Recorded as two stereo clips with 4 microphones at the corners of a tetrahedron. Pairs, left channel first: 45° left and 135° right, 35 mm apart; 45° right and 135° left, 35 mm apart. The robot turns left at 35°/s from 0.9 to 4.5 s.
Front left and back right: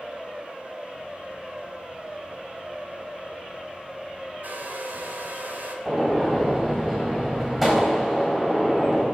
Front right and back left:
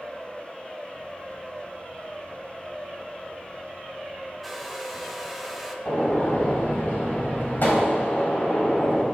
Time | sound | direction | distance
4.4 | a hair dryer | 130° right | 1.3 m
5.8 | a gunshot | 50° right | 3.5 m